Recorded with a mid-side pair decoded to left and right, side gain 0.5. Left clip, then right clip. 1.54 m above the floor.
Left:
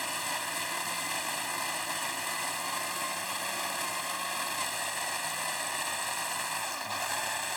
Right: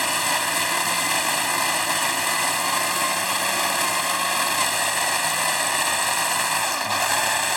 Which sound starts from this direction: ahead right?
A machine running, at 0.0 s.